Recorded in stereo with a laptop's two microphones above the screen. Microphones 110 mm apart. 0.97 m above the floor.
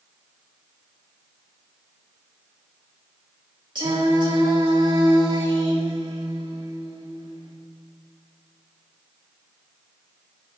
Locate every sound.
3.8 s singing: 45° right (ahead or behind), 2 m